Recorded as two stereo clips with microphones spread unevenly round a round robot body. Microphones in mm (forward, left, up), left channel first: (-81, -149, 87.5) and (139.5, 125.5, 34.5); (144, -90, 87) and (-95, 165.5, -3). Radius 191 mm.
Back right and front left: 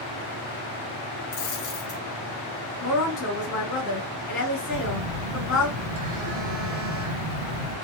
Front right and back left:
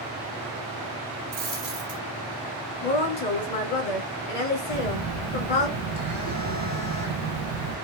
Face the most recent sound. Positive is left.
turn(degrees=70)